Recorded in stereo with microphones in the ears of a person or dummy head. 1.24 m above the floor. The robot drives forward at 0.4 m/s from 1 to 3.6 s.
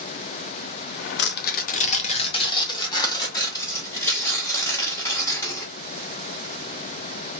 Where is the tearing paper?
50° left (ahead or behind), 0.5 m; by 5.7 s 20° left (ahead or behind), 1.2 m.